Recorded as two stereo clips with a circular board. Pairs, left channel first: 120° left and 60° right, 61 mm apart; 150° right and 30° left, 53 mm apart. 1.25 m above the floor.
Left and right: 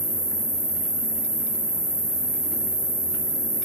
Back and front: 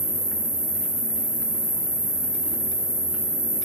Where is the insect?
85° right, 1.8 m.